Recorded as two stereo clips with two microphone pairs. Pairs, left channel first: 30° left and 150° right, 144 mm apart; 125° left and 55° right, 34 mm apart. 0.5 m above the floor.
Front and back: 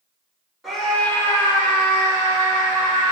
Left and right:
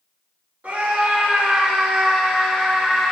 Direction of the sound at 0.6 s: 60° right.